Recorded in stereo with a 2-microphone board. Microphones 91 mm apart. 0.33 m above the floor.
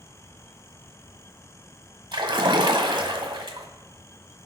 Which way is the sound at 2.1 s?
55° right (ahead or behind).